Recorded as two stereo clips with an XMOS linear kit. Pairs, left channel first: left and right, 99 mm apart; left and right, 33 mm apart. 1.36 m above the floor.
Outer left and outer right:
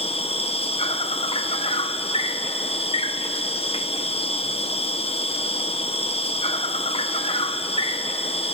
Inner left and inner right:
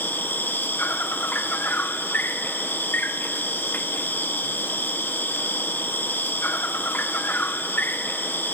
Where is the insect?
75° left (ahead or behind), 1.0 m.